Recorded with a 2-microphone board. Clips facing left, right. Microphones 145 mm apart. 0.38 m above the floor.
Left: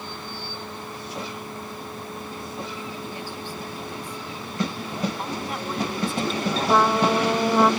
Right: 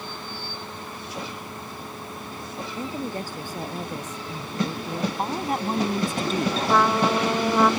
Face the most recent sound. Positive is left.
turn(degrees=10)  # may be behind; listen again after turning